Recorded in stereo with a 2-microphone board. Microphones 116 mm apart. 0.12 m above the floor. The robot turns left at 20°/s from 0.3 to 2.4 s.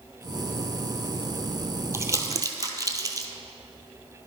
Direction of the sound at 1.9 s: 25° right (ahead or behind).